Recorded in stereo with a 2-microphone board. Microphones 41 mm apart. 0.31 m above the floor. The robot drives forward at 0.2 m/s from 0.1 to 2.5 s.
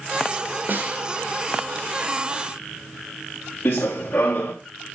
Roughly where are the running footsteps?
Left.